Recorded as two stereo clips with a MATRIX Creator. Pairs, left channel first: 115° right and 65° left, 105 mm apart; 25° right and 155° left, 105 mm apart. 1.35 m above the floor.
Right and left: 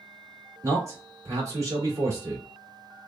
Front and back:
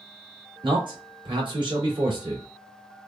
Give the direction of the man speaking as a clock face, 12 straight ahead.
8 o'clock.